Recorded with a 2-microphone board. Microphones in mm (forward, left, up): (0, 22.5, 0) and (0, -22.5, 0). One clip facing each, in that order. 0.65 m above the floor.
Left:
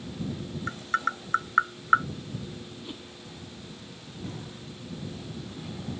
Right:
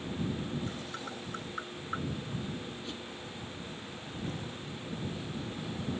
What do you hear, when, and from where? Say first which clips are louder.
0.7 s tapping: left 11 dB; 75° left (ahead or behind)
2.8 s a whoosh: even; 15° left (ahead or behind)